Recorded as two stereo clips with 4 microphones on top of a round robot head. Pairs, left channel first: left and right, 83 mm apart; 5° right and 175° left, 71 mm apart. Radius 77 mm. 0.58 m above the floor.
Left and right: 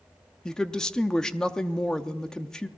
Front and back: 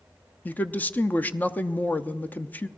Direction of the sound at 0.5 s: 15° left.